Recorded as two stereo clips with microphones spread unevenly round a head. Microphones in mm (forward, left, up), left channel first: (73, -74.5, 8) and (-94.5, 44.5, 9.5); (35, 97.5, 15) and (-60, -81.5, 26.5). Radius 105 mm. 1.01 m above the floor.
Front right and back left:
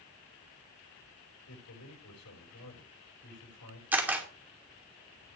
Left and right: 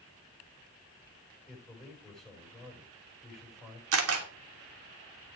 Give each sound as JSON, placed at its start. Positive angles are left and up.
{"t": 1.5, "sound": "a man speaking", "azimuth_deg": -25, "distance_m": 5.0}
{"t": 3.9, "sound": "a camera shutter", "azimuth_deg": -130, "distance_m": 2.5}